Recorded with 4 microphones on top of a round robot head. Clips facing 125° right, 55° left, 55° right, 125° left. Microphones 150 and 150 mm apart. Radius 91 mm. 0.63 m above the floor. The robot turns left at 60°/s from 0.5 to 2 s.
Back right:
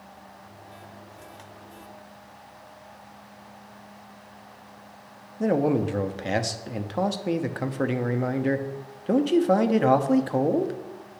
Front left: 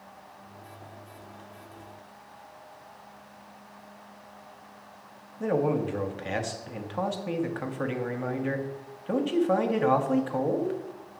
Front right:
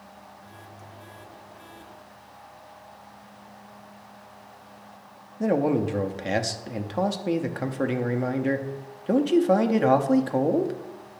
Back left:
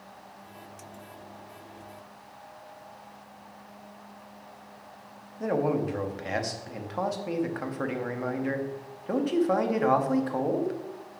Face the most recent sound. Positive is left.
turn(degrees=-105)